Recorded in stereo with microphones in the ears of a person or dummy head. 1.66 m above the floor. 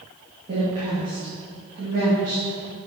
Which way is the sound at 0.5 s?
45° right (ahead or behind).